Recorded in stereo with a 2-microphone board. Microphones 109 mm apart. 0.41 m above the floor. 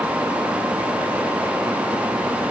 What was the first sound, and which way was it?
Only background noise.